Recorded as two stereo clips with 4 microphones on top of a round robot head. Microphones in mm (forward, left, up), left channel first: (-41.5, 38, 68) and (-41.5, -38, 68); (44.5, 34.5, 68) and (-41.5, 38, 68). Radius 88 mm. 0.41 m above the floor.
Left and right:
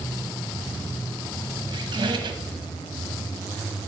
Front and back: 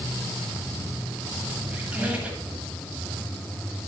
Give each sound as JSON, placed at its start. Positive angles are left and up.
{"t": 1.7, "sound": "a squeak", "azimuth_deg": -105, "distance_m": 1.3}